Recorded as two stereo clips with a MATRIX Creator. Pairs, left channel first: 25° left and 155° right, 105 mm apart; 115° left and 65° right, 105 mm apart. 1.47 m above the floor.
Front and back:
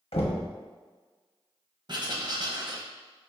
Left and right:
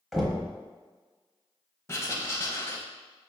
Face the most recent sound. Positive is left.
turn(degrees=170)